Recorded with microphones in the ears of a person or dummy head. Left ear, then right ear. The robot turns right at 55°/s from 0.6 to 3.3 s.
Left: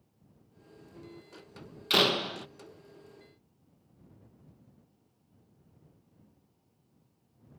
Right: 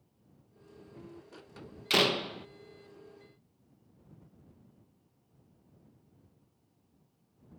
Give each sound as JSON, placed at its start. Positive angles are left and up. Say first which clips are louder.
{"t": 1.9, "sound": "a door slam", "louder": "left 2 dB", "azimuth_deg": -5}